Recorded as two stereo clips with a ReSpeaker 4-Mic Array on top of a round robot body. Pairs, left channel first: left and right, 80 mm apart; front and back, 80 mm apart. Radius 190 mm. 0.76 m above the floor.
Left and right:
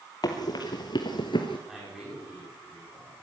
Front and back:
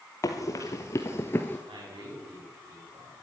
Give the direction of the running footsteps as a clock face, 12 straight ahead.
10 o'clock.